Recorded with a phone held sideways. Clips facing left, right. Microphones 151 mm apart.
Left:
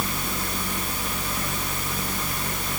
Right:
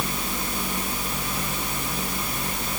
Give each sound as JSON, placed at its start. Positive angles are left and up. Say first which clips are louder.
{"t": 0.0, "sound": "a fan", "louder": "even", "side_deg": -25, "distance_m": 2.0}